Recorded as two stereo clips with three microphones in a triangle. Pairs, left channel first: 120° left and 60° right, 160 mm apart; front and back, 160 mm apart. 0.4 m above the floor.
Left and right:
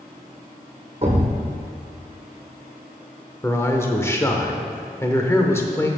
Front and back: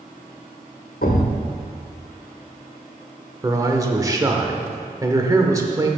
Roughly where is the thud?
Ahead.